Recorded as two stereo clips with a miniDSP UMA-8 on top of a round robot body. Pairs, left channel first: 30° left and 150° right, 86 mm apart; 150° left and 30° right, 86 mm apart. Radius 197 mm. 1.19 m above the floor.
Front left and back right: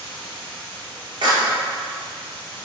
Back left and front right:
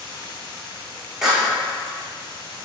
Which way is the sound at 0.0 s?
170° right.